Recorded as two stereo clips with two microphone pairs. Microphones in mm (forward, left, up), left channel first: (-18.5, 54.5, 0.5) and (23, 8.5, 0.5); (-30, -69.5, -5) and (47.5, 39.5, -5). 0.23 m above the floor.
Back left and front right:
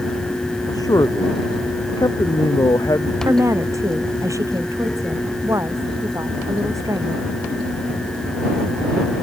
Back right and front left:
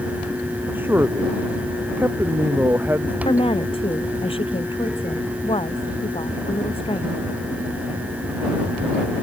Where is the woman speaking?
80° right.